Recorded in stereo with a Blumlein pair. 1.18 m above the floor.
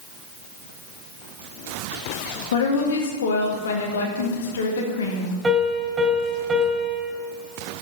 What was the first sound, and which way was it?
A woman speaking, 60° left.